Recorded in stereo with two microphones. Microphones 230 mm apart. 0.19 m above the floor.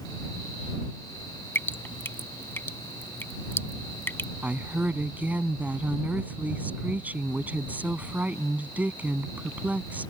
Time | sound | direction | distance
1.6 | dripping | 10° left (ahead or behind) | ?
4.4 | a woman speaking | 5° right (ahead or behind) | ?